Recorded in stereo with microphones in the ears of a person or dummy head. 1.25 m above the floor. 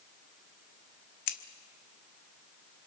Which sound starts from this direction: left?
Scissors, at 1.3 s.